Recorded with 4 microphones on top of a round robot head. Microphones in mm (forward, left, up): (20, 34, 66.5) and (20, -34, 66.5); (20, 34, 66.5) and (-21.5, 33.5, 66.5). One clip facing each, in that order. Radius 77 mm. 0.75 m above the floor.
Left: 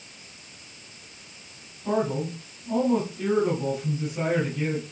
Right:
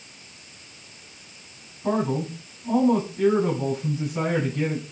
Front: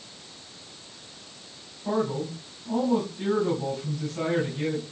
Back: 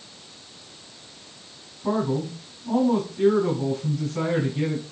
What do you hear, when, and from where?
1.8 s a man speaking: 125° right, 6 m